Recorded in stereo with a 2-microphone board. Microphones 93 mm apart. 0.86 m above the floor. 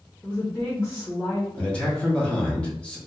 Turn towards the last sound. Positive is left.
turn(degrees=10)  # may be behind; listen again after turning